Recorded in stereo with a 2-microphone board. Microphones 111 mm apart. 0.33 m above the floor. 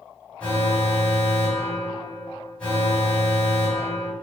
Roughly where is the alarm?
Centre.